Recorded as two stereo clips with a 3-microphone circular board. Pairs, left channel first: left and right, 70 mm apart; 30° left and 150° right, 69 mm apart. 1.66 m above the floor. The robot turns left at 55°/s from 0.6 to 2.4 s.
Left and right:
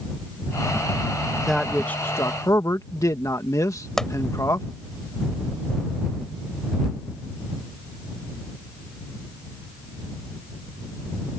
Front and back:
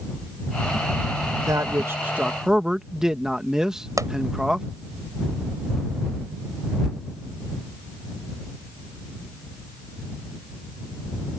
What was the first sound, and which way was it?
A man speaking, straight behind.